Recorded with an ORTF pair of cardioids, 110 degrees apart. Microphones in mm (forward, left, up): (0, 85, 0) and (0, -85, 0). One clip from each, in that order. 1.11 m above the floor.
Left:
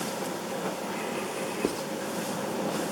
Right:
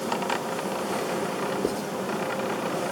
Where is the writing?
5° left, 0.8 m.